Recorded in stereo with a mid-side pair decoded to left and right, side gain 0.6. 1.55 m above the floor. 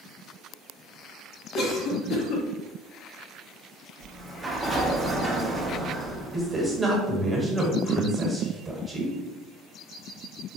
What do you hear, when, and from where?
1.5 s a cough: 60° left, 0.7 m
4.0 s a sliding door: 15° right, 0.7 m
6.3 s a man speaking: 15° right, 1.2 m